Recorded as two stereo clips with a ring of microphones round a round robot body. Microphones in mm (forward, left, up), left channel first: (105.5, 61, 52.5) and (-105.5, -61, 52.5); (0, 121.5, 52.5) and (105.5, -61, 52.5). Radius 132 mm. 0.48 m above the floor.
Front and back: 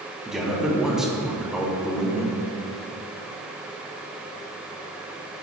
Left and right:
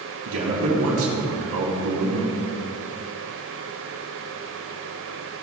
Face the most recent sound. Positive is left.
turn(degrees=-60)